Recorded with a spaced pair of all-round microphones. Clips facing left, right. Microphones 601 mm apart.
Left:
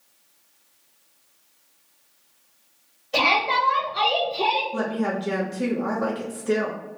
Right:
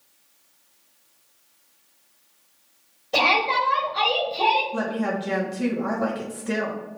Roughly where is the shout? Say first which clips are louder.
Right 1 dB; right.